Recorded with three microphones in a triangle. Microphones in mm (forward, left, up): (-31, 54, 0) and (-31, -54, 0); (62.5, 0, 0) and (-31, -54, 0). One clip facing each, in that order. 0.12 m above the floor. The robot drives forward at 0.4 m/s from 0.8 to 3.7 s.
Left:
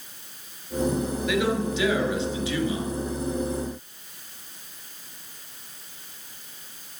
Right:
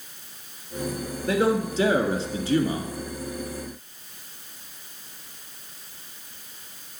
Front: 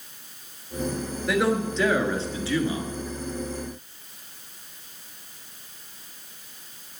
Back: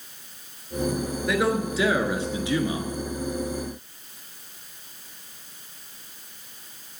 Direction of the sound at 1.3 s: 60° right.